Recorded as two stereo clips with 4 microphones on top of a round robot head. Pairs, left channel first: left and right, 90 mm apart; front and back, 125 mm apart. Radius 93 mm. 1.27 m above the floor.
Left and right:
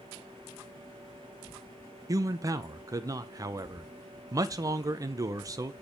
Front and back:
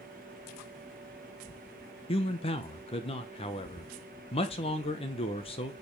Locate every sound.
2.1 s a man speaking: 40° right, 1.3 m